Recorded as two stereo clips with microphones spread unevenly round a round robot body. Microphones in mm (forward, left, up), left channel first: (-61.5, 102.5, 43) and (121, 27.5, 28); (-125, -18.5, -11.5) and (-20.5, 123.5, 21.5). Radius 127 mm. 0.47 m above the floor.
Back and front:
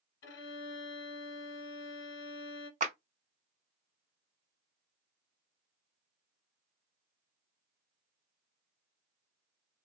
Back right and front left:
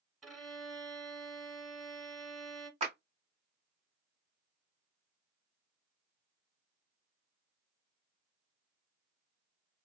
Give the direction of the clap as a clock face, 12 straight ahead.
12 o'clock.